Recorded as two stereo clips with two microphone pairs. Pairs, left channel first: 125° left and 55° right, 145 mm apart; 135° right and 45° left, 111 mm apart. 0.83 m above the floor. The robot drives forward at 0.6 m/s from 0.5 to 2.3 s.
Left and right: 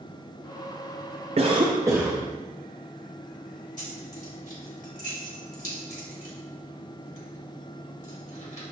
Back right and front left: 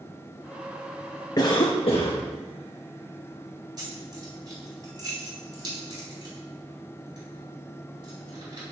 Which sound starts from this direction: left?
Keys jangling, at 3.8 s.